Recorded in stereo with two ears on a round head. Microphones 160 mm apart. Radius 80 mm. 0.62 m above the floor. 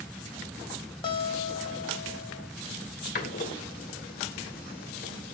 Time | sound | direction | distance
1.0 | a guitar | 25° left (ahead or behind) | 1.2 m
3.1 | a door slam | 50° left (ahead or behind) | 2 m